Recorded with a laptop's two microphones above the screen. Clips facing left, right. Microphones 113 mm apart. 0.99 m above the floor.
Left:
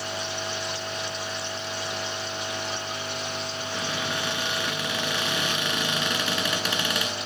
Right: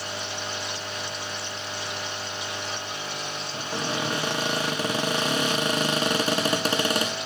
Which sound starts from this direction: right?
A cupboard door, at 3.5 s.